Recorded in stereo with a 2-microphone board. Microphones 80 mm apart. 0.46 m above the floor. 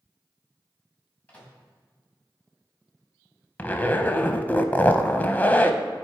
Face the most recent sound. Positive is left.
turn(degrees=20)  # may be behind; listen again after turning